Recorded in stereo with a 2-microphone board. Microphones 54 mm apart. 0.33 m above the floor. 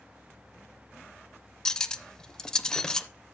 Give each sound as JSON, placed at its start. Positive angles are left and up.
{"t": 1.6, "sound": "cutlery clinking", "side_deg": 15, "distance_m": 0.5}